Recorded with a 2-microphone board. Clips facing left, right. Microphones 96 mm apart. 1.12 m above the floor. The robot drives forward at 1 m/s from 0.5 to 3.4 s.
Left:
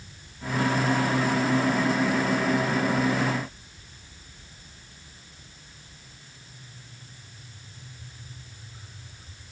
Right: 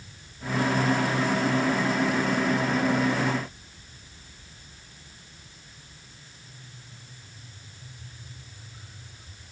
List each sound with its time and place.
Only background noise.